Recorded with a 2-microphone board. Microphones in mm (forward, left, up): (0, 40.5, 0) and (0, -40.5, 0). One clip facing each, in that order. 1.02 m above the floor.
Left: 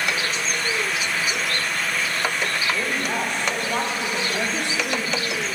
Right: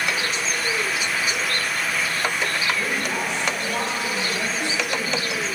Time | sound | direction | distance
2.7 | a woman speaking | 40° left (ahead or behind) | 3 m